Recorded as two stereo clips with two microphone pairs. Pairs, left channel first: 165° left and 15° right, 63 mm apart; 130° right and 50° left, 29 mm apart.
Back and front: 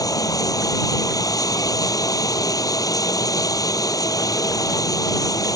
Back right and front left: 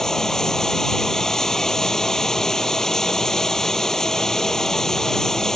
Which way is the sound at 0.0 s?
155° left.